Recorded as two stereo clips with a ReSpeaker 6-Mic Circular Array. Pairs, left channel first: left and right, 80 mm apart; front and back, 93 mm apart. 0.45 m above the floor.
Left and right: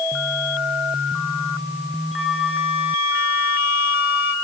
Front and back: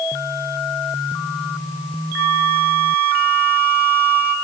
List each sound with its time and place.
2.2 s a flute: 50° right, 1.0 m